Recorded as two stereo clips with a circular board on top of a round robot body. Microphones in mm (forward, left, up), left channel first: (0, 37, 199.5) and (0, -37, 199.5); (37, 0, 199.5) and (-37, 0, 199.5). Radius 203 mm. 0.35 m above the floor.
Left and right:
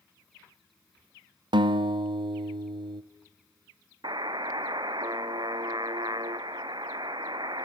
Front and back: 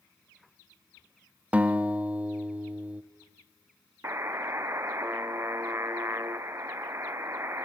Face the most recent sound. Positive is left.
turn(degrees=-120)